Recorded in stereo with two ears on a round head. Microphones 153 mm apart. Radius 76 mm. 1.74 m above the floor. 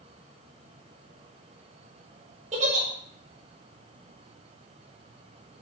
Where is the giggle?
40° right (ahead or behind), 5.5 m.